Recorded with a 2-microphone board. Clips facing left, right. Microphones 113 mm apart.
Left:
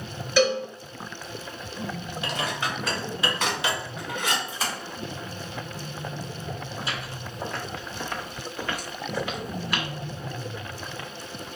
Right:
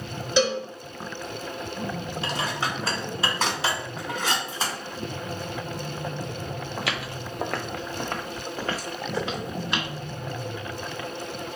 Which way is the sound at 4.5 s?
30° right (ahead or behind).